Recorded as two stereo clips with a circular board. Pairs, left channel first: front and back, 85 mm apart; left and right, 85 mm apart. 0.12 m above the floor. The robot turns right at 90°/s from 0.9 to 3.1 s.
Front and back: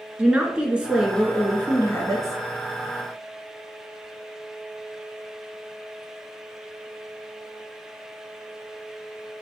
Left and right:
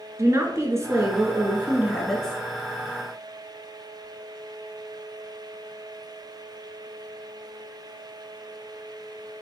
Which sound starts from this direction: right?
A woman speaking, at 0.2 s.